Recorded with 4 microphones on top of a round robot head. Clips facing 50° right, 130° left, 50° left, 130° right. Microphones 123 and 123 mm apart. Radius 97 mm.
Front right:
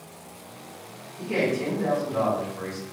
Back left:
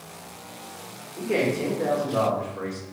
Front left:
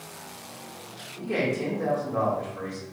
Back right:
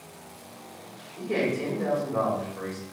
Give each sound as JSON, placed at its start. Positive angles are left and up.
{"t": 1.2, "sound": "a man speaking", "azimuth_deg": 140, "distance_m": 1.4}